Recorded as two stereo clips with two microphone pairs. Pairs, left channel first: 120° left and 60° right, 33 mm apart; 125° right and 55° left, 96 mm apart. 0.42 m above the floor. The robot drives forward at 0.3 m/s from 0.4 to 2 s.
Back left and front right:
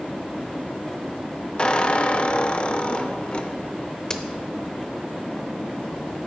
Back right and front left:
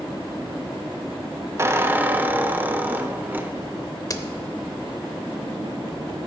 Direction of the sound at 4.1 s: 175° right.